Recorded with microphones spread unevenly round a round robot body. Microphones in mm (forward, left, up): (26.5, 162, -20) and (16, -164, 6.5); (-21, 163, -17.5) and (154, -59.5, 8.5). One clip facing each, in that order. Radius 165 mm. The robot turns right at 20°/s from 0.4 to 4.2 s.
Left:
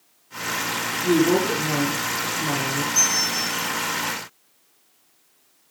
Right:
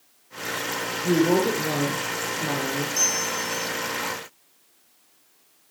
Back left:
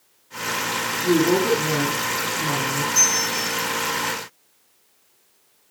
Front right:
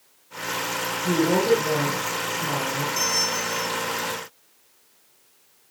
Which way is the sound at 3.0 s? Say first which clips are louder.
Even, back left 1 dB; 90° left.